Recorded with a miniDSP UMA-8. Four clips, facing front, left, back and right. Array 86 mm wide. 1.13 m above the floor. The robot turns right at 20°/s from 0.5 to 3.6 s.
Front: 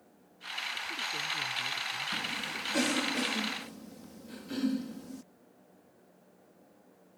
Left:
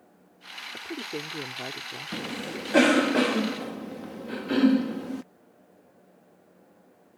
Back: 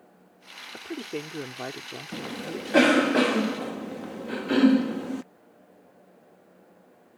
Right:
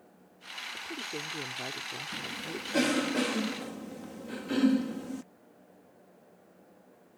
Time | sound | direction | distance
0.7 | a woman speaking | 150° left | ?
2.1 | a cough | 130° left | ?